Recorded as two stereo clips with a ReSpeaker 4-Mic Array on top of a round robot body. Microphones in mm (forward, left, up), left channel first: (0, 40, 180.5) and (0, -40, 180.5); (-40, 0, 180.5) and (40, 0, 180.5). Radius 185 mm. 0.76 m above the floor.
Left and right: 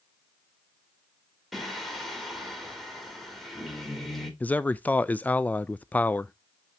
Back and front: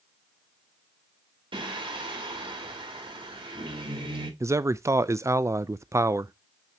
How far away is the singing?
About 2.5 m.